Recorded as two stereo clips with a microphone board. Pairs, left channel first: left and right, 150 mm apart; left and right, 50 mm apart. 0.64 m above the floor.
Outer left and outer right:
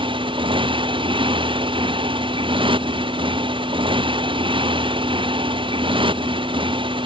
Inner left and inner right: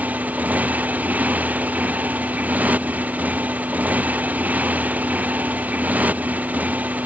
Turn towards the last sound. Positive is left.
turn(degrees=-35)  # may be behind; listen again after turning